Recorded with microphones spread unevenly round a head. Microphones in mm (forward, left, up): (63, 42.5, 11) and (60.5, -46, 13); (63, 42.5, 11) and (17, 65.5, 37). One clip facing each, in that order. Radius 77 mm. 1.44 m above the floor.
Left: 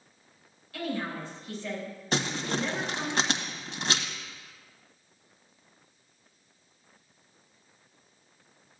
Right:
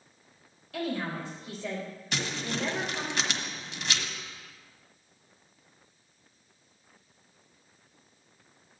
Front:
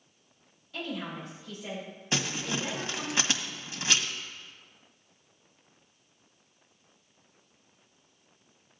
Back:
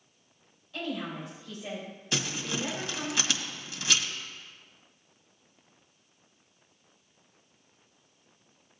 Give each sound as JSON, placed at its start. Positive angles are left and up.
{"t": 0.7, "sound": "a woman speaking", "azimuth_deg": -115, "distance_m": 4.0}
{"t": 2.1, "sound": "crumpling", "azimuth_deg": 35, "distance_m": 1.5}